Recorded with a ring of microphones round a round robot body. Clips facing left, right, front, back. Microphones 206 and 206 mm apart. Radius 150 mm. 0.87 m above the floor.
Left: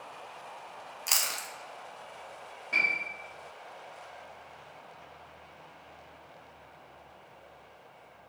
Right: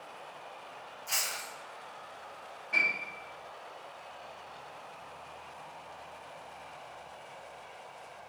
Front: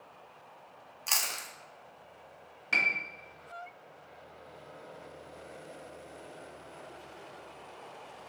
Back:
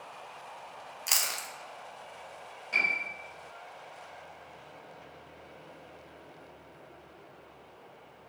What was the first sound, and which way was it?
Chewing, 100° left.